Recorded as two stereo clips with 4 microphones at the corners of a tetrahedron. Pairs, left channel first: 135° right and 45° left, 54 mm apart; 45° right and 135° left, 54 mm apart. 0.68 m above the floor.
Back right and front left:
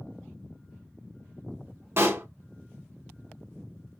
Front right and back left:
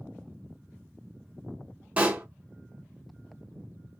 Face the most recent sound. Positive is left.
turn(degrees=75)